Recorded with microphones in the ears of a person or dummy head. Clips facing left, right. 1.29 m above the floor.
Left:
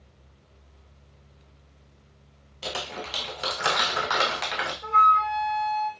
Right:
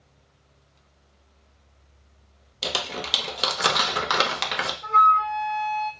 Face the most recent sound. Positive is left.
turn(degrees=25)  # may be behind; listen again after turning